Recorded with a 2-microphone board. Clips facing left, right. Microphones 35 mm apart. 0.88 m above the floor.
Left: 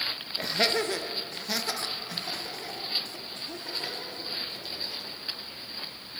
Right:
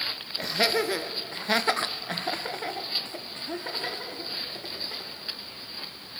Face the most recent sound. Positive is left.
turn(degrees=-35)  # may be behind; listen again after turning